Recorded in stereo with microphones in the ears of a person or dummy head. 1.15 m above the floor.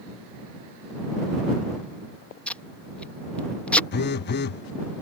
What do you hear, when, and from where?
2.5 s tape being pulled: 10° left (ahead or behind)
3.9 s a phone buzzing: 50° left (ahead or behind)